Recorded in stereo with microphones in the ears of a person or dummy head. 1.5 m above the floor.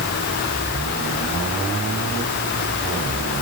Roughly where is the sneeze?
I don't hear a sneeze.